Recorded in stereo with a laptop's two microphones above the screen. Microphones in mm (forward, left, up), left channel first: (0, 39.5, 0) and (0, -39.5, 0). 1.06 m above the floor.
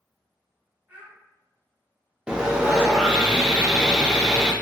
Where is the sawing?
10° right (ahead or behind), 0.5 m.